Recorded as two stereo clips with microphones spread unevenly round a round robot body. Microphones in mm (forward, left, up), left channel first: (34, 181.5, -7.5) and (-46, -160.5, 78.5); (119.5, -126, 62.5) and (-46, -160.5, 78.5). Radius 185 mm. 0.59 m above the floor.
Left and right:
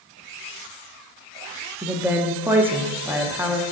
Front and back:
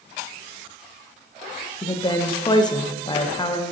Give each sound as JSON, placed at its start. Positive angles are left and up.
{"t": 1.8, "sound": "a woman speaking", "azimuth_deg": 0, "distance_m": 0.9}